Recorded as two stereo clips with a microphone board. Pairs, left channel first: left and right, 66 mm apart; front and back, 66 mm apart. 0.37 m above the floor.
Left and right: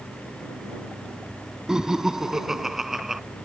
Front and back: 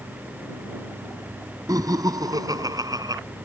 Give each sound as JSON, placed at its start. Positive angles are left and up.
{"t": 1.7, "sound": "laughter", "azimuth_deg": -170}